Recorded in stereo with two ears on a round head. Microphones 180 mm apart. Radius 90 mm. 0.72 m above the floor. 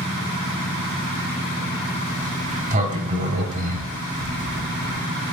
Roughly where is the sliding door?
Right.